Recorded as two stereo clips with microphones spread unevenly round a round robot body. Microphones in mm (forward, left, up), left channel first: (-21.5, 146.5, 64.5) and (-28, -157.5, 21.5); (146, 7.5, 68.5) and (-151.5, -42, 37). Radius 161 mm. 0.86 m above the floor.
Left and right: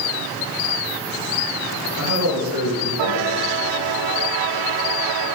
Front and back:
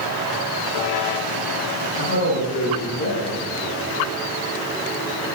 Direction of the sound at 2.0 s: 45° right.